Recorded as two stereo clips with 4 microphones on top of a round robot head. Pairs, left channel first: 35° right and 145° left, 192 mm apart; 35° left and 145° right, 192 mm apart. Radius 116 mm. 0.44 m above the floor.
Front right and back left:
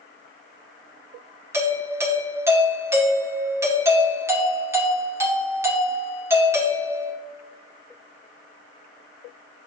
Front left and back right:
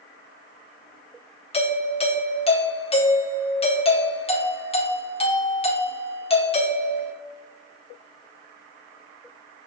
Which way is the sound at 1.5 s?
75° left.